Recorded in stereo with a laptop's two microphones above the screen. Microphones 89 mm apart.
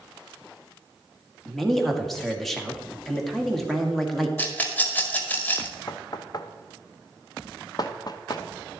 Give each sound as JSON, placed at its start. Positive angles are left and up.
{"t": 1.4, "sound": "a man speaking", "side_deg": 0, "distance_m": 1.7}
{"t": 4.4, "sound": "a rattle", "side_deg": 20, "distance_m": 1.5}
{"t": 5.9, "sound": "knocking", "side_deg": 45, "distance_m": 0.7}